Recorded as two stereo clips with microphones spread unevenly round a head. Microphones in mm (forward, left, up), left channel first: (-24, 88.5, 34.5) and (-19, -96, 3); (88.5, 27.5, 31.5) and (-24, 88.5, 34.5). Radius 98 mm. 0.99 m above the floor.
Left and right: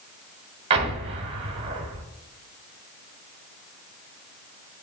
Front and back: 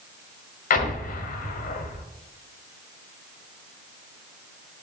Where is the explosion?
25° right, 1.1 m.